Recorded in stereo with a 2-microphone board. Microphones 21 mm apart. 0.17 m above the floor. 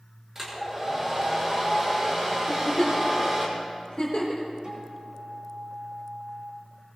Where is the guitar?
35° right (ahead or behind), 6.5 m.